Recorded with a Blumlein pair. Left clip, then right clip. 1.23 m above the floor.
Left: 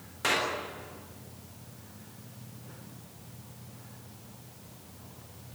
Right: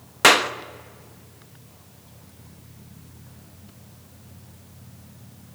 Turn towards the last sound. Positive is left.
turn(degrees=-55)